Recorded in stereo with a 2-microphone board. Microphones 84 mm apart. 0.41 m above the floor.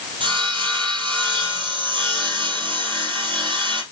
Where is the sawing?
75° right (ahead or behind), 3.5 m.